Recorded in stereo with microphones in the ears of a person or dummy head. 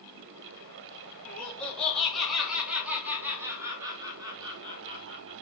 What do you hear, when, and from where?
1.2 s laughter: 10° left (ahead or behind), 3 m; by 5.3 s 30° right (ahead or behind), 3 m